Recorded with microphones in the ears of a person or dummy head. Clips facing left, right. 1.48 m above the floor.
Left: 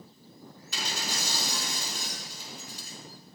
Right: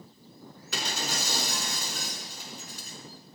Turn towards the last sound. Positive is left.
turn(degrees=-55)  # may be behind; listen again after turning